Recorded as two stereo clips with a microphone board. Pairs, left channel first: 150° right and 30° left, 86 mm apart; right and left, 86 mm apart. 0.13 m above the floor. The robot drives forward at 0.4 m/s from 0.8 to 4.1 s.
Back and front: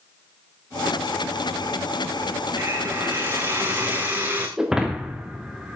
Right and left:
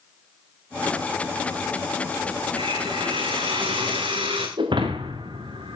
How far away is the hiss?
About 5 m.